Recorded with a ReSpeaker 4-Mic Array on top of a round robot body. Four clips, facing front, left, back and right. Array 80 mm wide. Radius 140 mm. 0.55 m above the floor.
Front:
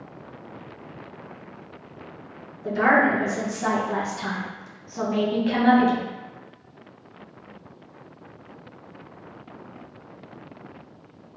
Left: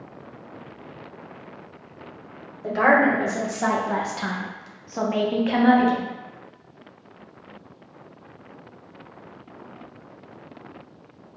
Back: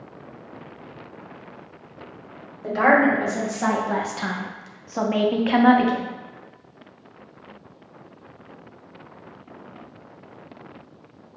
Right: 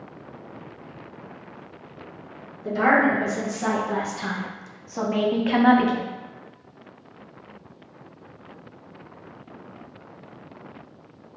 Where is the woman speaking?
130° left, 1.7 m; by 6.0 s 130° right, 0.7 m.